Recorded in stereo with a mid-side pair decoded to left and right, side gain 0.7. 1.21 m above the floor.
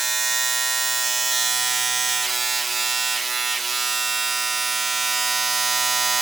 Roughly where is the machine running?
Ahead.